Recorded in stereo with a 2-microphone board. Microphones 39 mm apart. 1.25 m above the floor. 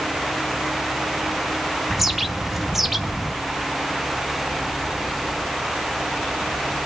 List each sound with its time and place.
1.9 s a bird: 5° right (ahead or behind), 0.6 m